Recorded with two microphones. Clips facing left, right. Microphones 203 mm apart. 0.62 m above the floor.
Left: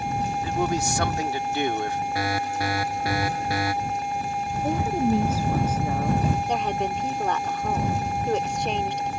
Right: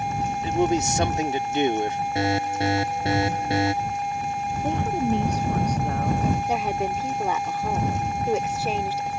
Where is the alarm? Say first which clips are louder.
Right 6 dB; 25° right (ahead or behind).